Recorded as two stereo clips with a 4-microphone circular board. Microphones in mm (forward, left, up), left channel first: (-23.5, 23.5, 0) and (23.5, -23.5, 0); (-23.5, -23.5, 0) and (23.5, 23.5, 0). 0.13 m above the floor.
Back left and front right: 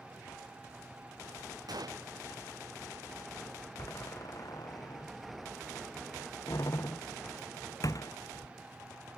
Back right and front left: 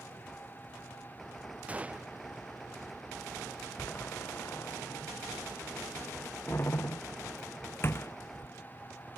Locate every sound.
1.7 s a gunshot: 25° right
3.8 s a door slam: 170° left